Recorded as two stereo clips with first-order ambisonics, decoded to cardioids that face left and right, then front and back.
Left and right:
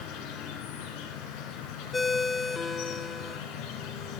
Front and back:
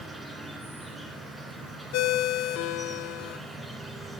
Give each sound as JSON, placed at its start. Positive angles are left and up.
{"t": 0.0, "sound": "an insect", "azimuth_deg": 95, "distance_m": 1.8}
{"t": 1.9, "sound": "a ringtone", "azimuth_deg": 15, "distance_m": 0.5}